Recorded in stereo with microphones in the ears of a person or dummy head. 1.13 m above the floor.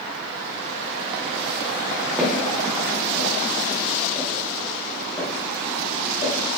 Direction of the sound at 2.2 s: 10° right (ahead or behind).